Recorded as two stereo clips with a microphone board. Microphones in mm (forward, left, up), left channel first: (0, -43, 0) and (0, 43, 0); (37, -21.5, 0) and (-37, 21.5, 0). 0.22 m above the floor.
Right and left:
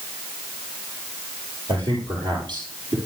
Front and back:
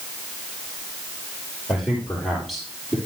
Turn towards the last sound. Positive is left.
turn(degrees=65)